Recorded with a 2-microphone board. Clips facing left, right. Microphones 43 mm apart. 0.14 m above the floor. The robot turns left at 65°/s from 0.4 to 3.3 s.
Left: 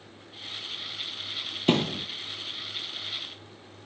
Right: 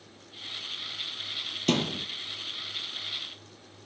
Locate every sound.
1.7 s a thud: 20° left (ahead or behind), 0.7 m; by 2.0 s 5° right (ahead or behind), 0.7 m